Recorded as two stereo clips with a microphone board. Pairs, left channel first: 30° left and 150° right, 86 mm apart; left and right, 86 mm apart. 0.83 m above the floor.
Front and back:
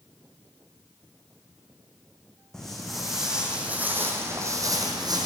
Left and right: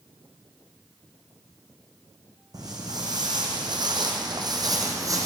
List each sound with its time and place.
2.5 s footsteps: 55° right, 1.9 m; by 5.3 s 135° right, 1.5 m